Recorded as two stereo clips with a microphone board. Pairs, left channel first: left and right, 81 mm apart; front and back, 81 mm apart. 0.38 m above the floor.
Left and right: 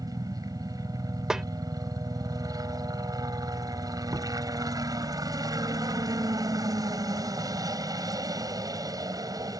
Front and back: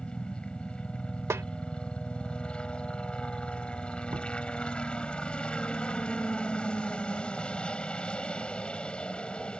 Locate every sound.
0.0 s a helicopter: 75° right
1.3 s a snare drum: 170° right
4.1 s knocking: 140° right